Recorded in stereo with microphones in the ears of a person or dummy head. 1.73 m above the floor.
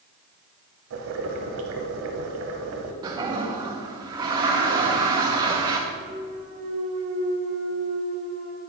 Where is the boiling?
70° right (ahead or behind), 1.0 m.